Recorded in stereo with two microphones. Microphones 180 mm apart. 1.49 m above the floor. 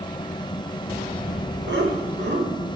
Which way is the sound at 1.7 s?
80° right.